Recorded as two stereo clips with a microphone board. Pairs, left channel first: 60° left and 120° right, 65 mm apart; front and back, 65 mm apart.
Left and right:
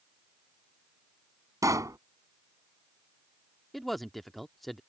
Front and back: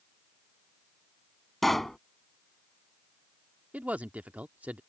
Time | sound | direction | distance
1.6 | a pop | 85° right | ?
3.7 | a man speaking | 145° left | ?